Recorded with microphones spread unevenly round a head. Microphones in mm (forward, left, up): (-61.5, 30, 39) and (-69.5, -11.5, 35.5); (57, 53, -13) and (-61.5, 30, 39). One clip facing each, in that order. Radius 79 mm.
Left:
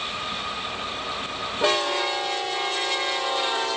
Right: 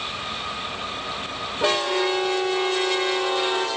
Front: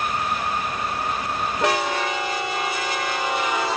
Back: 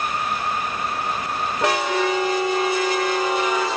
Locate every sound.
1.8 s a violin: 115° right, 2.5 m